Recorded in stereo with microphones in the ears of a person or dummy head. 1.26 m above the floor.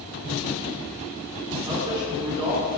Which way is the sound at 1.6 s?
25° right (ahead or behind).